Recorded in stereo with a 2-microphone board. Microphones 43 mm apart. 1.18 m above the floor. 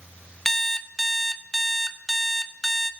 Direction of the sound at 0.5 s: 10° left (ahead or behind).